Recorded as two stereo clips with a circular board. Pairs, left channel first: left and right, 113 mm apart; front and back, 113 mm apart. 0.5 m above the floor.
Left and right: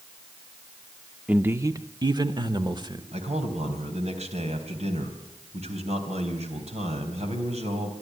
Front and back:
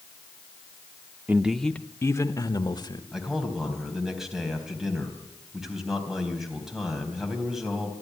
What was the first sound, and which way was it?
A man speaking, 145° right.